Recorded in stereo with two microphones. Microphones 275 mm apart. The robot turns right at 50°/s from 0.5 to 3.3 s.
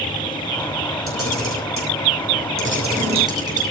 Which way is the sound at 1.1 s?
50° right (ahead or behind).